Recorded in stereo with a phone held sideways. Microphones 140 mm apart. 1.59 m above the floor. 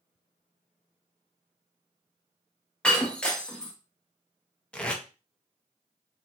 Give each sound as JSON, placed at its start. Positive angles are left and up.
{"t": 2.8, "sound": "breaking glass", "side_deg": 5, "distance_m": 0.7}
{"t": 4.7, "sound": "tape being pulled", "side_deg": 5, "distance_m": 0.5}